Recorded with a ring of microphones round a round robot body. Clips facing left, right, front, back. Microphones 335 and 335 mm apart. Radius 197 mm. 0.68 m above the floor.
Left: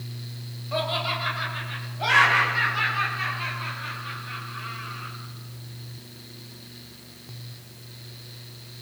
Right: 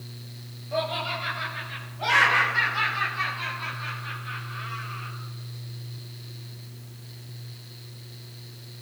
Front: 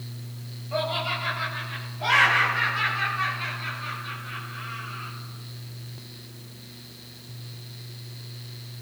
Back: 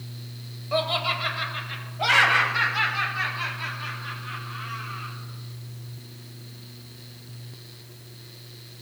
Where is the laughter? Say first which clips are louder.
Even, back 2 dB; 160° left, 3.5 m; by 5.1 s 150° right, 7.5 m.